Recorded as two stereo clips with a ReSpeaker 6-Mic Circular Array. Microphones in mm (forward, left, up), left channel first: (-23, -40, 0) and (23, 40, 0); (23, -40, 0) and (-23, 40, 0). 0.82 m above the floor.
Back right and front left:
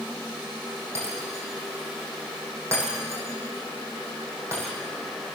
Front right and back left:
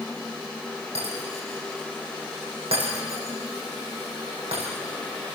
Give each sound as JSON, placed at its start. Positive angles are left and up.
{"t": 0.9, "sound": "breaking glass", "azimuth_deg": 125, "distance_m": 6.5}